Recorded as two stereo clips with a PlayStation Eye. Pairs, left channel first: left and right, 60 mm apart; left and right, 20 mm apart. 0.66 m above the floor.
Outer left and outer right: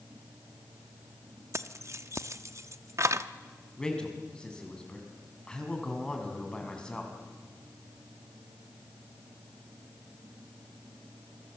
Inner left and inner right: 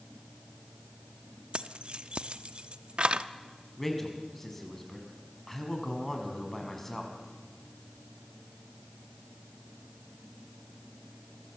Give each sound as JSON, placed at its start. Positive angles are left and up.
{"t": 1.5, "sound": "keys jangling", "side_deg": -55, "distance_m": 0.8}
{"t": 3.8, "sound": "a man speaking", "side_deg": 15, "distance_m": 5.0}